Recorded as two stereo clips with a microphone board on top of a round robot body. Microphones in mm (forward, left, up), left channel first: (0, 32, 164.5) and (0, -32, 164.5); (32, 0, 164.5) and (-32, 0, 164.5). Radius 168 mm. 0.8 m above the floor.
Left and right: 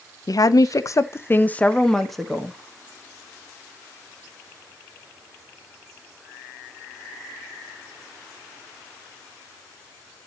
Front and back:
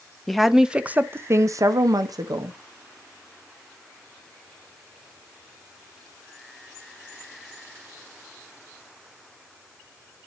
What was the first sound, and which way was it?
A woman speaking, 90° left.